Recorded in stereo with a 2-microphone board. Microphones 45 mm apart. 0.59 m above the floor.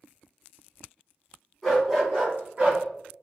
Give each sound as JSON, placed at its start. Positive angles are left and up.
{"t": 1.6, "sound": "a dog barking", "side_deg": 0, "distance_m": 2.0}